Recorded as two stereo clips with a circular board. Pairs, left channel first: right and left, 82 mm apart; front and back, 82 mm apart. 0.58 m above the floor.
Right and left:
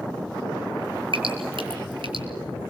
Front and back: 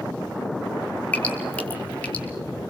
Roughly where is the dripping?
Left.